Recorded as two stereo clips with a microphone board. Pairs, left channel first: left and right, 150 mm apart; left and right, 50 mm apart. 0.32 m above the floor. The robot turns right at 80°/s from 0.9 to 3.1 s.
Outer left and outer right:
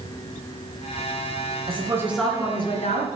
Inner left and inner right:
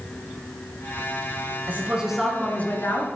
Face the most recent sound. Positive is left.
turn(degrees=70)